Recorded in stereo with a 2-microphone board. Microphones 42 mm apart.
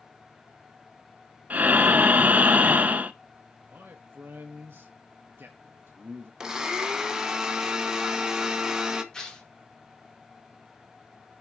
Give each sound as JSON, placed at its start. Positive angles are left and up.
{"t": 1.5, "sound": "breathing", "side_deg": -40, "distance_m": 0.6}
{"t": 3.7, "sound": "a man speaking", "side_deg": -55, "distance_m": 0.9}
{"t": 6.4, "sound": "a blender", "side_deg": -15, "distance_m": 1.0}
{"t": 9.1, "sound": "tearing paper", "side_deg": 15, "distance_m": 2.0}